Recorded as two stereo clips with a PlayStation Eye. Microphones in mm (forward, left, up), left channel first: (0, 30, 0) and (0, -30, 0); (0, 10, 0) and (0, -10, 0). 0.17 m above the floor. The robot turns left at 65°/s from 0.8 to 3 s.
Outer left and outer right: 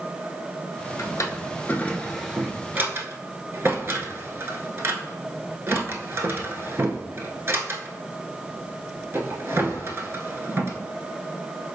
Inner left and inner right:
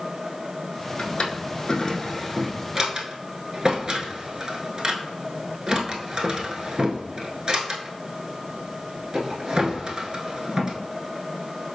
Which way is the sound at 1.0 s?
70° left (ahead or behind).